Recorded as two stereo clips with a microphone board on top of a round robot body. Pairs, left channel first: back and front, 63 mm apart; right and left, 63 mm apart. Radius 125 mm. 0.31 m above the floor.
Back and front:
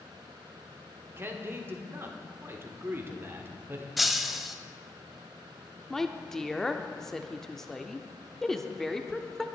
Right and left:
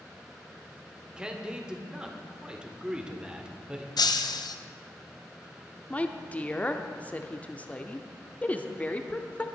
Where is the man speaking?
20° left, 1.7 m.